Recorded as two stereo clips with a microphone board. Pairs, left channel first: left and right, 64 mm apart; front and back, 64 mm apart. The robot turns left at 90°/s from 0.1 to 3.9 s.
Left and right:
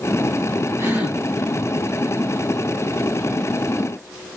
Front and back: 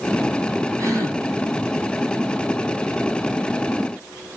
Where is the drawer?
No drawer in this recording.